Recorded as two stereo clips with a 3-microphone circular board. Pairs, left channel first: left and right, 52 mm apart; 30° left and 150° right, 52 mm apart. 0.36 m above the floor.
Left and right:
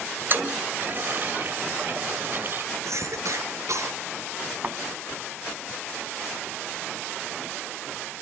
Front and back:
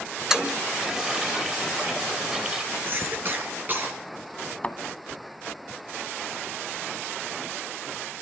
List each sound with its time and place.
0.3 s a toilet flushing: 75° right, 1.7 m
2.9 s a cough: 100° right, 6 m
4.6 s a thud: 35° right, 1.4 m